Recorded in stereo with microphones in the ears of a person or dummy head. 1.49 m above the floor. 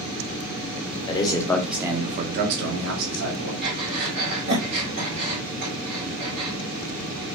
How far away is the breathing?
About 1.7 m.